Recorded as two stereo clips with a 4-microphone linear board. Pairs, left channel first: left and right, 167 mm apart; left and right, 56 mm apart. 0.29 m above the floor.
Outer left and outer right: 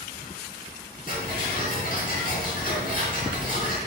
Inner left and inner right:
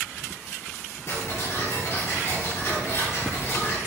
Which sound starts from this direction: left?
Ticking, at 1.1 s.